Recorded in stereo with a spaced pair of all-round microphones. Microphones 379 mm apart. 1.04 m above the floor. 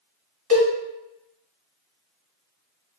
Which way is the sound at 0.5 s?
65° right (ahead or behind).